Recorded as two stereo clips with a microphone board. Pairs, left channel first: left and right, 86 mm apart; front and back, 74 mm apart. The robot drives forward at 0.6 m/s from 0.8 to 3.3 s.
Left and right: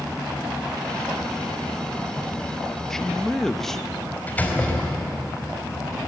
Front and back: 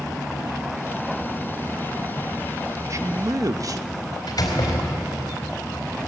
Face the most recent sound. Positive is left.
turn(degrees=20)